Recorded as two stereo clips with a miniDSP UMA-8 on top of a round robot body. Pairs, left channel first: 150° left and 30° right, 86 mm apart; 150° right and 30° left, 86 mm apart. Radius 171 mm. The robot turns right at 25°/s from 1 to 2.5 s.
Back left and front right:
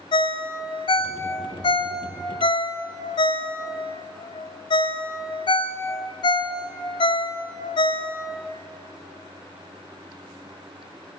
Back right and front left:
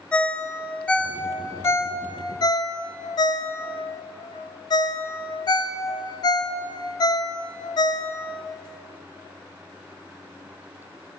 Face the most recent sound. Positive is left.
turn(degrees=170)